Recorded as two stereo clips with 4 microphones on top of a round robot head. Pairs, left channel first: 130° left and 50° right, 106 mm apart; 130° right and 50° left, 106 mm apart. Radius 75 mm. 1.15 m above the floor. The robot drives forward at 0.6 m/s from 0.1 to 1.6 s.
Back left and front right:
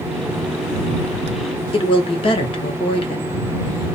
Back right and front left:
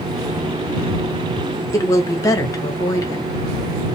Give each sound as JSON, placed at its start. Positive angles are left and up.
{"t": 1.7, "sound": "a woman speaking", "azimuth_deg": 170, "distance_m": 0.9}